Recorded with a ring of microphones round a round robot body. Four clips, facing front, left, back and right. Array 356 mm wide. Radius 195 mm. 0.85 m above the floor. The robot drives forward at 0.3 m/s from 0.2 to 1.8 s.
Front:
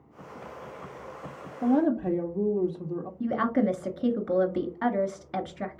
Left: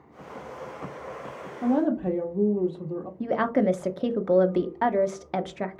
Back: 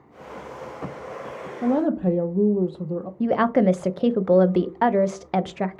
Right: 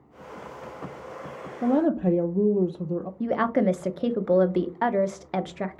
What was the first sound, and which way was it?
A woman speaking, 130° right.